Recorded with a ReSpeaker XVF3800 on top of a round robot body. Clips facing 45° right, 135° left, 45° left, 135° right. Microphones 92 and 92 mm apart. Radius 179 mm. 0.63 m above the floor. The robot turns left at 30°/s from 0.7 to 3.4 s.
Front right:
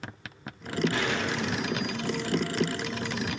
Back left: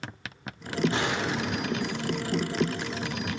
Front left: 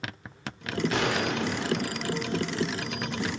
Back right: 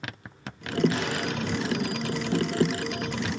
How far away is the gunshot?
About 2.5 m.